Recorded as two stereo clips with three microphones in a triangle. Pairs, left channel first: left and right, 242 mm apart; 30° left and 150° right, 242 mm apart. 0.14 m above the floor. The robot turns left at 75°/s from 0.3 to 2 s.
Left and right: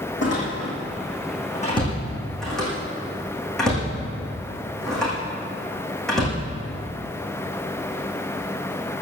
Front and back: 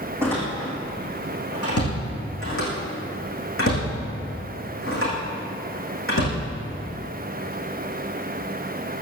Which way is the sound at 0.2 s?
130° left.